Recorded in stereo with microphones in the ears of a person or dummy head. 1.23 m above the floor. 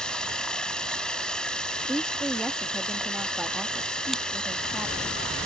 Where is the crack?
Centre (ahead or behind).